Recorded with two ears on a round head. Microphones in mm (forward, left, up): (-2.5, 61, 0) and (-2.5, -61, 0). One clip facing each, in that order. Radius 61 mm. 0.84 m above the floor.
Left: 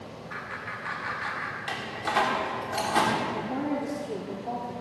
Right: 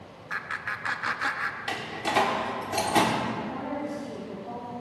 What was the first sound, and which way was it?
Laughter, 65° right (ahead or behind).